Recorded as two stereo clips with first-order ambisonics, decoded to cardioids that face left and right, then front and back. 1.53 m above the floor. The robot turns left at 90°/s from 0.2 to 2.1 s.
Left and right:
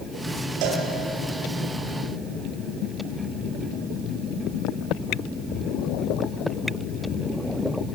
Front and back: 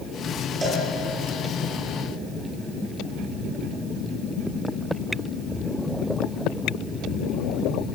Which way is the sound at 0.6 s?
105° right.